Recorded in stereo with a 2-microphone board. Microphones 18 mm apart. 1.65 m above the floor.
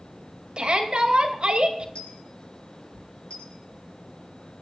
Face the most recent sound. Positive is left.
turn(degrees=75)  # may be behind; listen again after turning